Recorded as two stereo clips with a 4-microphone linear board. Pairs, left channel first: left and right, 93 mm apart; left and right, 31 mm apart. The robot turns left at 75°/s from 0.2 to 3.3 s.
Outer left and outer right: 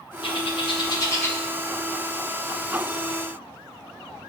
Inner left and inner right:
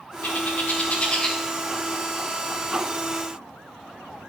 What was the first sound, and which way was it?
A bird, 75° left (ahead or behind).